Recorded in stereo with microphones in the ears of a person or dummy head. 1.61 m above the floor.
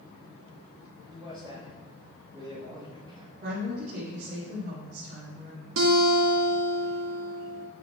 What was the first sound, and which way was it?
A man speaking, 20° right (ahead or behind).